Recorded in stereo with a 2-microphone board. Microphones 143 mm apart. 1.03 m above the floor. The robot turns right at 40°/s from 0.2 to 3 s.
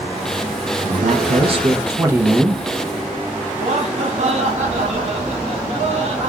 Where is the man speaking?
70° right, 0.7 m; by 2.6 s straight ahead, 0.7 m.